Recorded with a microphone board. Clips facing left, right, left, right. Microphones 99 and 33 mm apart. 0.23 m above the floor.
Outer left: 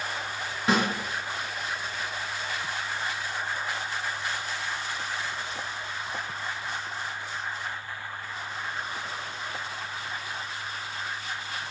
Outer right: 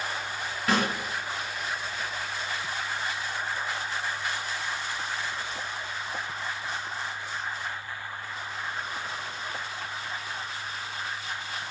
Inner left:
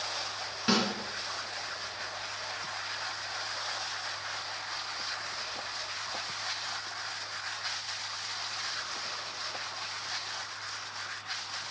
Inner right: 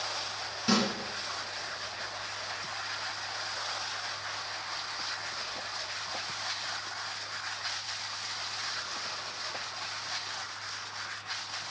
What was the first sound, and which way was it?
A snare drum, 20° left (ahead or behind).